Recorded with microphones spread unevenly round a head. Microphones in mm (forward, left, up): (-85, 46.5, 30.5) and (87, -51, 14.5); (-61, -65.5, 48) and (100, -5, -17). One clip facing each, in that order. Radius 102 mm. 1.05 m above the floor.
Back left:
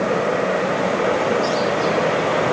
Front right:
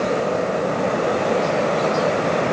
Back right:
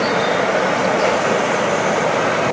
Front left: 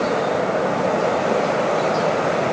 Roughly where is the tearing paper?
No tearing paper in this recording.